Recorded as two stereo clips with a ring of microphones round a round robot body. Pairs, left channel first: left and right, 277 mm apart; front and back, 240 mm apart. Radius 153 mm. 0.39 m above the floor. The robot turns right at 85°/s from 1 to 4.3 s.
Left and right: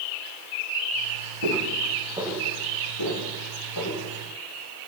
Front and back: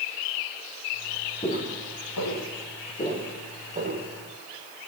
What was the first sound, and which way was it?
Footsteps, 75° right.